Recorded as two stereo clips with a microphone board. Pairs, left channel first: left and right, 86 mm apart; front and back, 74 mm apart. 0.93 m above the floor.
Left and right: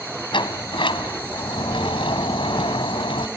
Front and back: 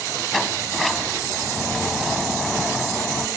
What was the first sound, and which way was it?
A sliding door, 90° left.